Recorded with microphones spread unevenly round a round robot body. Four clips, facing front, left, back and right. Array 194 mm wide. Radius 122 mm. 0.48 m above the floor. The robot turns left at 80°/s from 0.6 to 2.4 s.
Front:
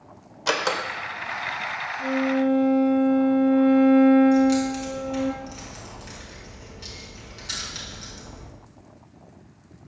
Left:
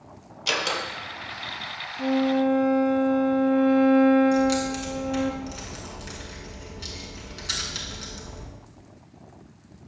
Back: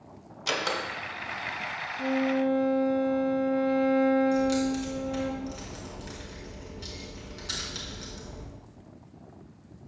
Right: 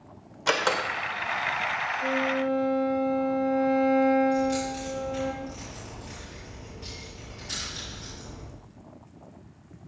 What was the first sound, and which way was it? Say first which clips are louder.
A door slam: right 3 dB, front 6 dB; 35° right.